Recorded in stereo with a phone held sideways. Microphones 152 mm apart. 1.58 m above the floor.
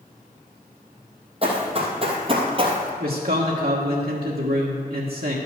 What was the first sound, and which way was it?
Running footsteps, 40° right (ahead or behind).